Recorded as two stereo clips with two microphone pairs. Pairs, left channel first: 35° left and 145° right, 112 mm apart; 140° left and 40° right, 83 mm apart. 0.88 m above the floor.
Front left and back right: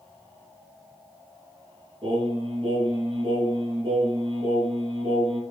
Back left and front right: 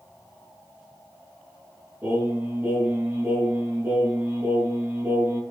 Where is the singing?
105° right, 5 m.